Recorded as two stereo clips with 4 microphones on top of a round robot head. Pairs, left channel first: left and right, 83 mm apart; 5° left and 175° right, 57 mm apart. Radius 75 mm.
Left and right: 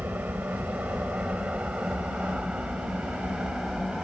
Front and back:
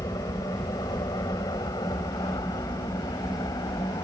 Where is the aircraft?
20° right; by 4.0 s 5° right.